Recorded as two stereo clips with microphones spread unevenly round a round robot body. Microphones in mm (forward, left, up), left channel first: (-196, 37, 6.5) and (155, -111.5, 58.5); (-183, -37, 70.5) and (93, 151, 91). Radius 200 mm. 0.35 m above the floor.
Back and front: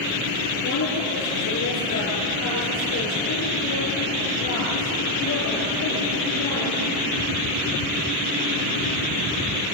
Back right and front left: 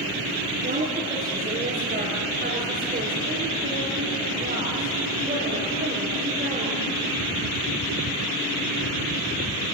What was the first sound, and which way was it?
A woman speaking, 95° left.